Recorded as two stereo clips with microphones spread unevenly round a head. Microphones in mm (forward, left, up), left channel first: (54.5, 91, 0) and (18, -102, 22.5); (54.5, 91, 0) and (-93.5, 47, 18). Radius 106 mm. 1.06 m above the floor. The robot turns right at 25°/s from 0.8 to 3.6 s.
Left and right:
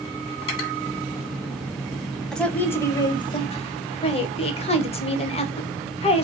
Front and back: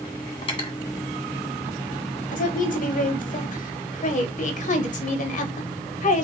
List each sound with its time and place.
0.4 s cutlery clinking: 75° left, 1.3 m
2.3 s a woman speaking: 5° right, 1.0 m; by 6.3 s 30° left, 1.0 m